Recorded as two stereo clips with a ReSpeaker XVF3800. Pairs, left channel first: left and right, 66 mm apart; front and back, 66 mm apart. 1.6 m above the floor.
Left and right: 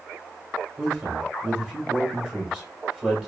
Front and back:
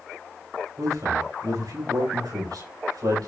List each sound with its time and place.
0.8 s a man speaking: 170° right, 6.5 m